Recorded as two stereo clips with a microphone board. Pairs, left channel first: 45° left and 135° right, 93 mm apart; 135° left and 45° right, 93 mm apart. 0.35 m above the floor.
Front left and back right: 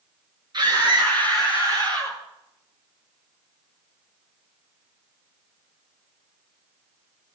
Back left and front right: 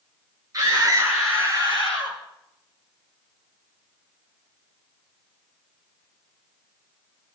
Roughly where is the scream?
Right.